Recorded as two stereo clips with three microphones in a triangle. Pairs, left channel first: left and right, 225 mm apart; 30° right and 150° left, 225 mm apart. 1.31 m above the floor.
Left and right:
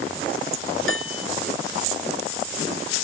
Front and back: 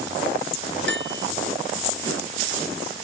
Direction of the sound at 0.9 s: 115° left.